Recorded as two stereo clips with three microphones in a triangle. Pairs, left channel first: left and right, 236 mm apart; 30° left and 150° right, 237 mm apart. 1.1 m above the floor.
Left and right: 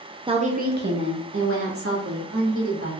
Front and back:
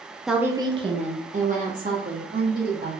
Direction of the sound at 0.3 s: 65° right.